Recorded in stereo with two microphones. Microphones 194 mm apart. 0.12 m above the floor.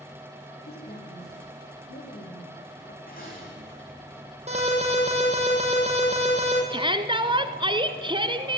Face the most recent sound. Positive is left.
turn(degrees=-25)  # may be behind; listen again after turning